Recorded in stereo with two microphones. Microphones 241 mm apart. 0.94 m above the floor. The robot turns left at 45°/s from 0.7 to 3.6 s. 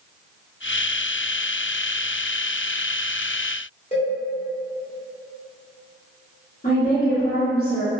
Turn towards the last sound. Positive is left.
turn(degrees=40)  # may be behind; listen again after turning